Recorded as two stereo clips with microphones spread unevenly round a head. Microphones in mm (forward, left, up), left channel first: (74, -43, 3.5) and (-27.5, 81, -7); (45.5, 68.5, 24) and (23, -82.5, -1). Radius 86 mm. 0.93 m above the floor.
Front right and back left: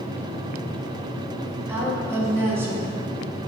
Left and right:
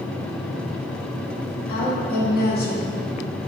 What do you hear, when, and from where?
1.7 s a woman speaking: 55° left, 1.6 m